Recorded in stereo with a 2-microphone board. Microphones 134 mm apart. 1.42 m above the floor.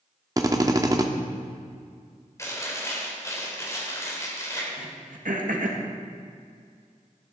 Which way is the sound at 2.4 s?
25° left (ahead or behind).